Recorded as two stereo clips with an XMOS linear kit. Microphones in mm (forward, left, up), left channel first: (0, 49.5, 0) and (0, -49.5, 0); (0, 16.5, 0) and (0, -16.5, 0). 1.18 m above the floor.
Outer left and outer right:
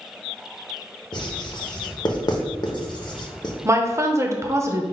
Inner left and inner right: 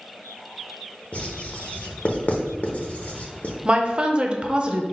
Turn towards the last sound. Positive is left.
turn(degrees=-30)  # may be behind; listen again after turning